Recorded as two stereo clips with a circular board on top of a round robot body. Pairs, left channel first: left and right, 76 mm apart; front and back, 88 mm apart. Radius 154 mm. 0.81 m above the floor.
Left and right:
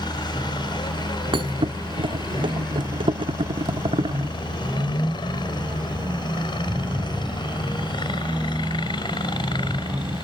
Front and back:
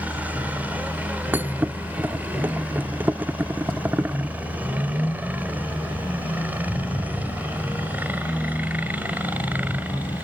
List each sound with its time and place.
0.0 s a helicopter: 110° left
1.3 s a thud: 110° right